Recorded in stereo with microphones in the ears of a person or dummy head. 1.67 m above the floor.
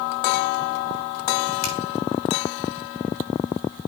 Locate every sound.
1.6 s a finger snap: 85° left, 5.5 m